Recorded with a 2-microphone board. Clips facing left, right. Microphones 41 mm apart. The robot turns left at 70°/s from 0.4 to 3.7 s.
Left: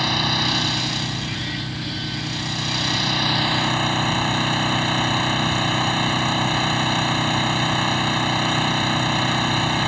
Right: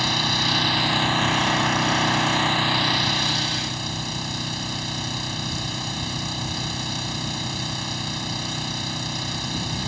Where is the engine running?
10° left; by 9.9 s 135° left.